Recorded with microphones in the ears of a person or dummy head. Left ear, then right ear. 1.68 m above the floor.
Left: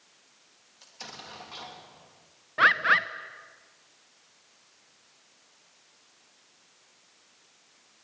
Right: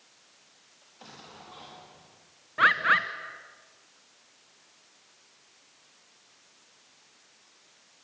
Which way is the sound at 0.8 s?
70° left (ahead or behind).